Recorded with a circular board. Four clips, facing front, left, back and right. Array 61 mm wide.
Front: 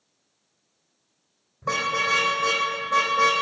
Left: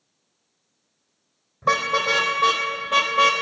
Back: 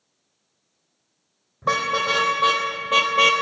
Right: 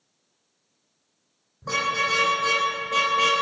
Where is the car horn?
135° left, 3 m; by 3.3 s 175° left, 1.7 m.